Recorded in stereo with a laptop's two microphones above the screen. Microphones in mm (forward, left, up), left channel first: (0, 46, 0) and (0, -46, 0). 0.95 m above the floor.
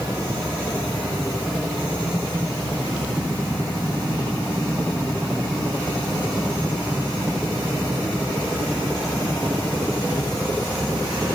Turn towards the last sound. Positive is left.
No sound to turn to.